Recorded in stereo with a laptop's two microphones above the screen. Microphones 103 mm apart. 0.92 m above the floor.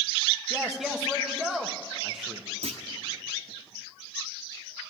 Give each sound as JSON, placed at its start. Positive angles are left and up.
{"t": 0.5, "sound": "a man speaking", "side_deg": 0, "distance_m": 1.0}
{"t": 2.6, "sound": "a clunk", "side_deg": -80, "distance_m": 0.9}